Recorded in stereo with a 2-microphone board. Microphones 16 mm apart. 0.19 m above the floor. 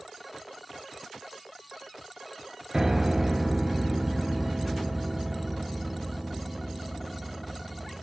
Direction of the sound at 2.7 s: 35° right (ahead or behind).